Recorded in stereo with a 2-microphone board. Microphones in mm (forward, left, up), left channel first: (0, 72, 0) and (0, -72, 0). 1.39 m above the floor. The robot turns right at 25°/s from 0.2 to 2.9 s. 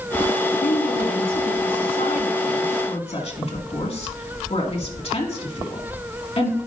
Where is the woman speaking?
80° left, 2 m; by 6.6 s 45° left (ahead or behind), 2 m.